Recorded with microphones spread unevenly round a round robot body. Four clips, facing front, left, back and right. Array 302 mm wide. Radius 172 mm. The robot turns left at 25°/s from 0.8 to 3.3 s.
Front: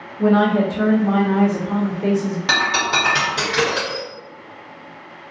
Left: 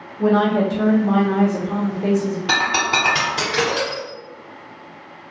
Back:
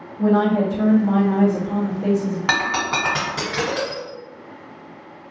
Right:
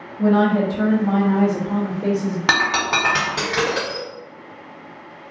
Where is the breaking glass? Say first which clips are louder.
Right 1 dB, front 2 dB; 110° right, 1.0 m; by 4.0 s 130° right, 1.0 m.